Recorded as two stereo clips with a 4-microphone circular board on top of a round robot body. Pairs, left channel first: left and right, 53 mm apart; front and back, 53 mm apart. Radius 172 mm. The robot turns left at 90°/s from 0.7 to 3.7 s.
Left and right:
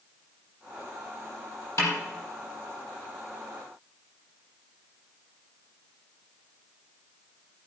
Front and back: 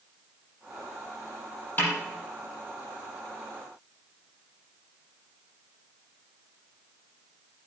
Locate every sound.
1.8 s a snare drum: 55° left, 4.5 m; by 2.0 s 40° left, 4.5 m